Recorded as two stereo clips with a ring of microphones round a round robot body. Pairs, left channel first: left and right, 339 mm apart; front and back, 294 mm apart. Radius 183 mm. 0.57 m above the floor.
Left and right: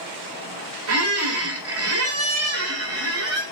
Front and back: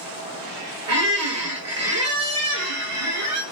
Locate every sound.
0.9 s a squeak: 140° right, 1.4 m